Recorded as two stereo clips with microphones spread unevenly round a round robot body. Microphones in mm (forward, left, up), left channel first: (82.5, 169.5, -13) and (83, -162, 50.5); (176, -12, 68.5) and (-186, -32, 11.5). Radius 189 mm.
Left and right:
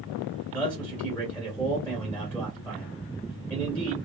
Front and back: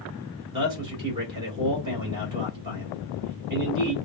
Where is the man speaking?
145° left, 1.5 m.